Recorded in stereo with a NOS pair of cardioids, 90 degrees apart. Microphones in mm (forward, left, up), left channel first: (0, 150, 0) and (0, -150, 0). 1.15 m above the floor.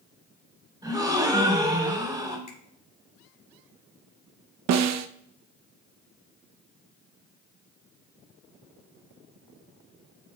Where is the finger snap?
25° left, 3 m.